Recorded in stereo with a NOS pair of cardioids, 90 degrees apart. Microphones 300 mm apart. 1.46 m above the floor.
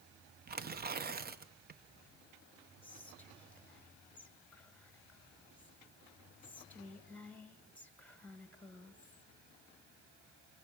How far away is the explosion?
I don't hear an explosion.